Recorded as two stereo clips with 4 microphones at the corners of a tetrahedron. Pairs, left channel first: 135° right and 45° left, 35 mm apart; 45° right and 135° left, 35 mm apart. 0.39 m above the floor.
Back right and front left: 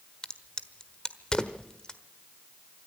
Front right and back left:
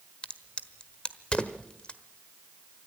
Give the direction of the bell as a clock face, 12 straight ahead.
I don't hear a bell.